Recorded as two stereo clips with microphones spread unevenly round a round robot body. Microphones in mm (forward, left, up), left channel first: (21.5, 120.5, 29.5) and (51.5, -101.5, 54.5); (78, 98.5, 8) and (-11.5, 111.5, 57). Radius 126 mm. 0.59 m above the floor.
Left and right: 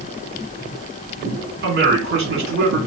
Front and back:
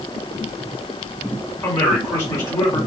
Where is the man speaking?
40° right, 2 m.